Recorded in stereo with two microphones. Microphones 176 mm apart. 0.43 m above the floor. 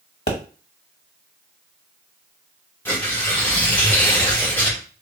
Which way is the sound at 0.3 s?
70° left (ahead or behind).